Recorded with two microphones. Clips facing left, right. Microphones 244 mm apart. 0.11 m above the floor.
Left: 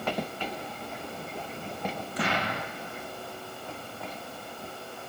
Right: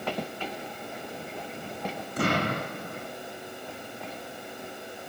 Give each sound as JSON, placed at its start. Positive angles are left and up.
{"t": 2.2, "sound": "an explosion", "side_deg": -50, "distance_m": 3.0}